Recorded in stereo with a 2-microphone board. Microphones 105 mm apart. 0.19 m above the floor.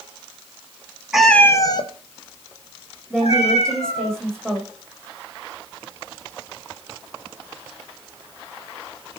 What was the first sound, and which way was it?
A cat meowing, 5° right (ahead or behind).